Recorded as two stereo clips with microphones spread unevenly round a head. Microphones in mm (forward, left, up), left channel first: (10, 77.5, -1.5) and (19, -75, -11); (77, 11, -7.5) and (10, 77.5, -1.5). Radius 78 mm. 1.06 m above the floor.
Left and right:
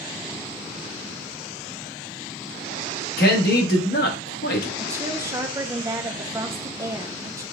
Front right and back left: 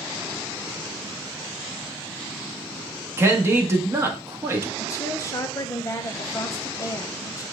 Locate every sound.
3.2 s a man speaking: 75° left, 1.3 m
4.8 s a woman speaking: 30° right, 0.6 m